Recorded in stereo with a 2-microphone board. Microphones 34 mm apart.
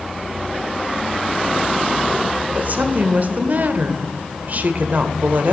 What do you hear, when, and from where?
2.5 s a woman speaking: 50° right (ahead or behind), 1.0 m